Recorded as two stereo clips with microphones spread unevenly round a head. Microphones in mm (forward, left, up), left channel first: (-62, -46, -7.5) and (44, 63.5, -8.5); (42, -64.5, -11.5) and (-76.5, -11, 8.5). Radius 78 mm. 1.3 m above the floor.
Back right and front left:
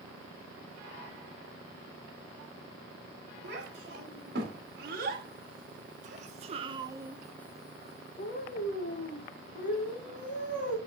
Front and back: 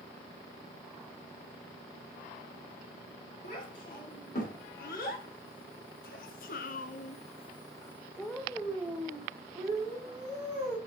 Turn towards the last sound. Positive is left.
turn(degrees=-140)